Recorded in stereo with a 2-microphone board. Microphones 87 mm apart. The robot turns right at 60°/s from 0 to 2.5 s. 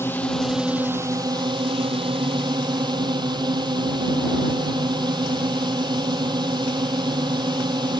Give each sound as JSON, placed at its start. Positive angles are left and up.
{"t": 0.0, "sound": "a drone", "azimuth_deg": 150}